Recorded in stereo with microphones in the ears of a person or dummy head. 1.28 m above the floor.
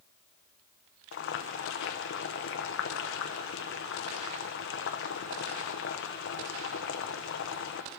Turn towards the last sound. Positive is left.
turn(degrees=60)  # may be behind; listen again after turning